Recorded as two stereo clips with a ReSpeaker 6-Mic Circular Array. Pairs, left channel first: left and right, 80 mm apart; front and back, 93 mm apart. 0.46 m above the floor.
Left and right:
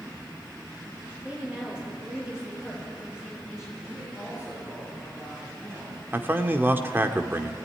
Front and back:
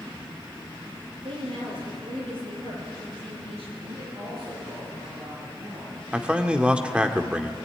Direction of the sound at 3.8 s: 160° right.